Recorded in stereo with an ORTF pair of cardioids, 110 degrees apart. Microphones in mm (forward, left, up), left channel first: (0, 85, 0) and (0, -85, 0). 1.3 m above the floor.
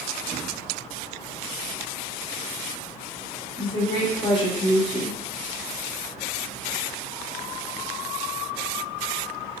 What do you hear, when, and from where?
3.6 s a woman speaking: 30° left, 1.2 m